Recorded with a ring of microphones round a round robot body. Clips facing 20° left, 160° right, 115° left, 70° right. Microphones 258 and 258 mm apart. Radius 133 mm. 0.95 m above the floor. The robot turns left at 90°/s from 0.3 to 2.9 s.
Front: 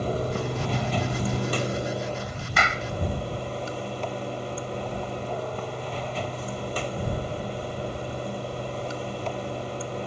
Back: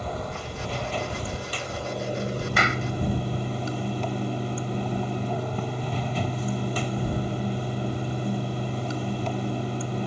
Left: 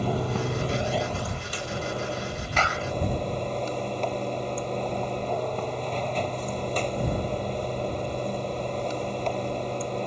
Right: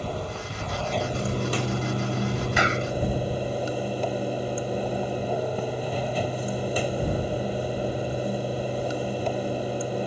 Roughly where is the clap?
Ahead.